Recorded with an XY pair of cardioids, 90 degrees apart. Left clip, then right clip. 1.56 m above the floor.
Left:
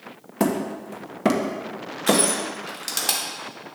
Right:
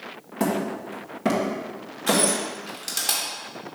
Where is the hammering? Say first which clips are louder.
Left 1 dB; 45° left, 1.2 m.